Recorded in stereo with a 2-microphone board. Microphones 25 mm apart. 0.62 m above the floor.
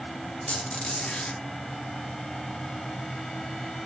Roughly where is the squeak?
Left.